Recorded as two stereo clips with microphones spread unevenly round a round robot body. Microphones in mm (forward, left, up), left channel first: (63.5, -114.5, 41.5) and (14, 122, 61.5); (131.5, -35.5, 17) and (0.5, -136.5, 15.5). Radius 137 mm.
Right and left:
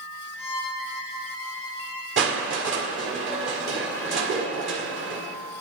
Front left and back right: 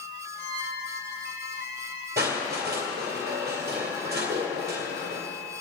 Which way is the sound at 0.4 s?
10° left.